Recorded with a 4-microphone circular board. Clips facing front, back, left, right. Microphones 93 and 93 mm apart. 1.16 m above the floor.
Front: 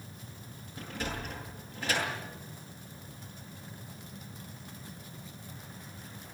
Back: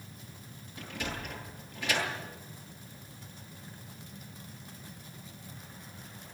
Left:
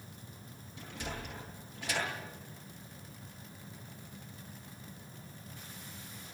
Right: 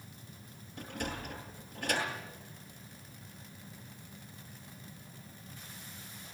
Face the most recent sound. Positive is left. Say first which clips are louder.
# front 1 dB, right 3 dB
turn(degrees=-55)